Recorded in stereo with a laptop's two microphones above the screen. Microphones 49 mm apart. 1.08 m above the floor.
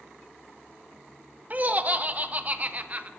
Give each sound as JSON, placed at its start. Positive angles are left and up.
{"t": 1.5, "sound": "laughter", "side_deg": -30, "distance_m": 0.7}